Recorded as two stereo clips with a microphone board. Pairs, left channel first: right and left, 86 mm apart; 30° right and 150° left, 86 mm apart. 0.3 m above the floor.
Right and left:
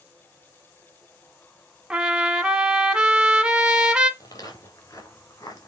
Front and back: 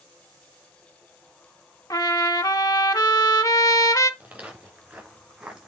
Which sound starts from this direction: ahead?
A trumpet, at 1.9 s.